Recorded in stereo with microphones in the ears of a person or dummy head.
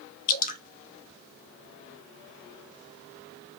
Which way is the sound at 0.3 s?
55° left (ahead or behind).